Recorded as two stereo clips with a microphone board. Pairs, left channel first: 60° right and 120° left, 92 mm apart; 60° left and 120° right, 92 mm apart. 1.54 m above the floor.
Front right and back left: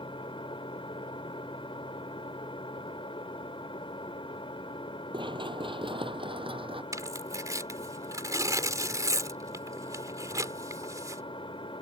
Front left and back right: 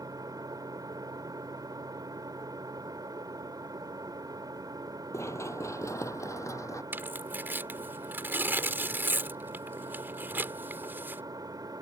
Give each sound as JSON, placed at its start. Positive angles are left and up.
{"t": 0.0, "sound": "an engine running", "azimuth_deg": -75}
{"t": 5.1, "sound": "running footsteps", "azimuth_deg": 115}
{"t": 6.9, "sound": "tearing paper", "azimuth_deg": 175}